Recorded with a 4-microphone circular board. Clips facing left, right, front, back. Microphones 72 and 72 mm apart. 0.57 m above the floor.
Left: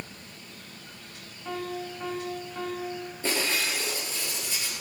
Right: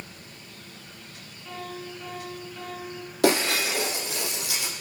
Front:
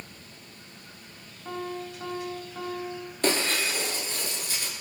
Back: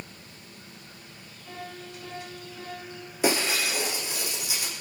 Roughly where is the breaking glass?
Right.